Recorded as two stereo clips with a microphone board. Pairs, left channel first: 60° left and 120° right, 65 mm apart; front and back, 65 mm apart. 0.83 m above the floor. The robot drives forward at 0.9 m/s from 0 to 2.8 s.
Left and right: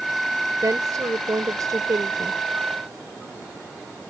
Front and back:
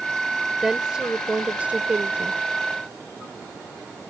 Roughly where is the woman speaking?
Right.